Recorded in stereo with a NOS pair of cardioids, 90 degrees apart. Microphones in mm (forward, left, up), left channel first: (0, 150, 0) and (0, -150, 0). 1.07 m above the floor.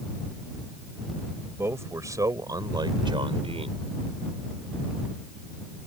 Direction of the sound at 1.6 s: 10° right.